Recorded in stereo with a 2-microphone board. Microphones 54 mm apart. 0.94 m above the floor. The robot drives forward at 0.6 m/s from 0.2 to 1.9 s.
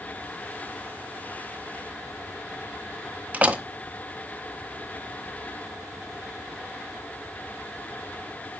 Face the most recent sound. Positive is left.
turn(degrees=-30)  # may be behind; listen again after turning